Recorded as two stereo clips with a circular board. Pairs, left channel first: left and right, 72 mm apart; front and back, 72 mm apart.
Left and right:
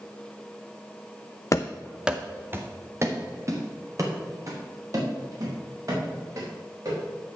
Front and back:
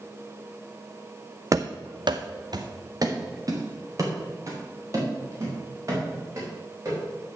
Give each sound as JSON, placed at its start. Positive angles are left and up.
{"t": 1.5, "sound": "running footsteps", "azimuth_deg": 135, "distance_m": 0.6}